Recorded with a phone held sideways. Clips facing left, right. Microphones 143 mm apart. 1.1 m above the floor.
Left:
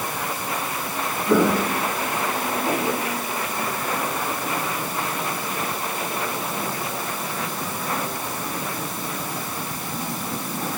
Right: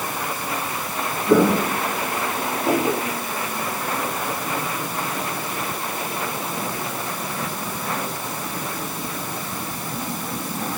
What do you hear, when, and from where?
1.3 s footsteps: 10° right (ahead or behind), 5.5 m; by 3.0 s 20° right (ahead or behind), 6.5 m